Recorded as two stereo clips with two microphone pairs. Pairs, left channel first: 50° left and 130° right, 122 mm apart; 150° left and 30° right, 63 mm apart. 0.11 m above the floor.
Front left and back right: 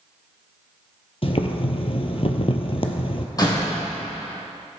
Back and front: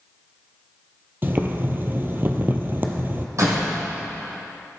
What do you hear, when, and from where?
1.2 s boiling: 20° left, 1.0 m
3.4 s a door slam: 5° right, 3 m